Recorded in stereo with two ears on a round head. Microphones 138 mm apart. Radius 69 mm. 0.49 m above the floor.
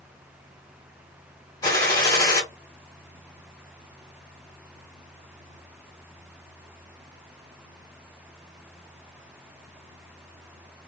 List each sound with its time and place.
1.6 s a gunshot: 25° left (ahead or behind), 1.5 m